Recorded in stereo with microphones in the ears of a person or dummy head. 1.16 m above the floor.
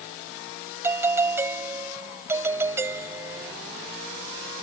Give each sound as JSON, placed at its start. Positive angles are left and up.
{"t": 0.8, "sound": "a doorbell", "side_deg": -15}